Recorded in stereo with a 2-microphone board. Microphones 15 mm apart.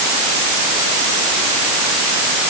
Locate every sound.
Only background noise.